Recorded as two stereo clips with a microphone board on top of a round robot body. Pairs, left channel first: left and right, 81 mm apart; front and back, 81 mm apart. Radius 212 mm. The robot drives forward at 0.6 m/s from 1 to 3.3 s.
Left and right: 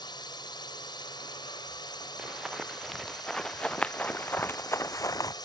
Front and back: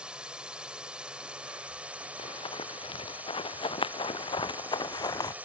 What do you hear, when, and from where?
0.0 s a drone: 105° left; by 5.5 s 110° left
2.2 s running footsteps: 5° right; by 5.3 s 45° left